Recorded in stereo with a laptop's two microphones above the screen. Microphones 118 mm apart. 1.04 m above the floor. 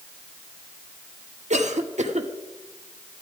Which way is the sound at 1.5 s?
75° right (ahead or behind).